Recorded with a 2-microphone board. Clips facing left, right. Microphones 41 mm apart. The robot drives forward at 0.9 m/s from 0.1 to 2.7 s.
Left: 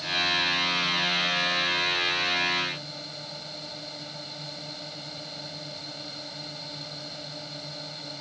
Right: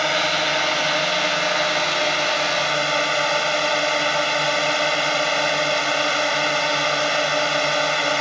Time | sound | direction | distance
0.0 | a drone | 70° right (ahead or behind) | ?